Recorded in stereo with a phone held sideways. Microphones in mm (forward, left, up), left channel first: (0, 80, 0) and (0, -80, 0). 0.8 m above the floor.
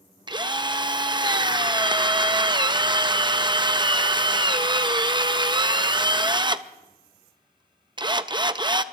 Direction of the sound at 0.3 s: 30° right (ahead or behind).